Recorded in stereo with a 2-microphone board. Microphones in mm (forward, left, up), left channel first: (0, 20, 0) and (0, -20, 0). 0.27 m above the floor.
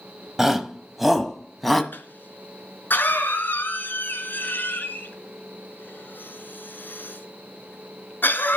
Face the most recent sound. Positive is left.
turn(degrees=55)  # may be behind; listen again after turning